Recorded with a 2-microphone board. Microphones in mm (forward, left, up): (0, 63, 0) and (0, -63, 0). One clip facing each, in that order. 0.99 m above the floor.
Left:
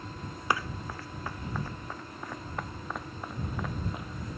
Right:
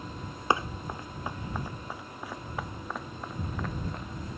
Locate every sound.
0.5 s running footsteps: 25° right (ahead or behind); by 4.3 s 5° left (ahead or behind)